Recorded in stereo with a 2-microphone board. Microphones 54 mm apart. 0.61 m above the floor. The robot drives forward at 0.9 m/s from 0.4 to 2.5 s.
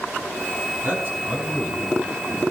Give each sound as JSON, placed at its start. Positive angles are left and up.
{"t": 0.8, "sound": "a man speaking", "side_deg": -40, "distance_m": 5.0}